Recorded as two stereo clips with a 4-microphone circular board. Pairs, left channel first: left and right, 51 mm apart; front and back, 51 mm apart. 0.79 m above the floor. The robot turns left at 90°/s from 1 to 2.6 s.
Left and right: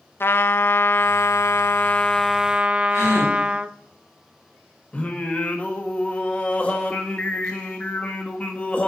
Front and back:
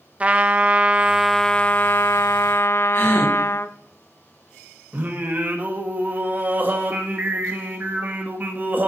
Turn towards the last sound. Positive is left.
turn(degrees=145)